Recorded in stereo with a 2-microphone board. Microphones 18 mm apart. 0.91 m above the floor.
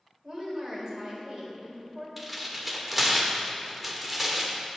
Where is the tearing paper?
Centre (ahead or behind), 1.5 m.